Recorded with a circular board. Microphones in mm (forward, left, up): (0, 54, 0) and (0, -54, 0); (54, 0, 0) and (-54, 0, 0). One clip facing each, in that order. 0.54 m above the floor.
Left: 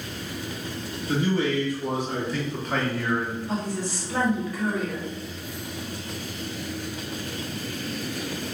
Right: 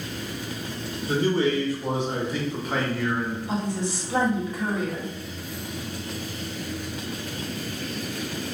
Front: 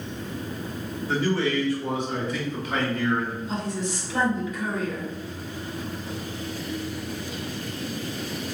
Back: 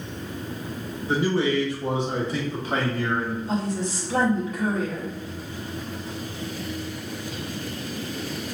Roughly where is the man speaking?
Behind right.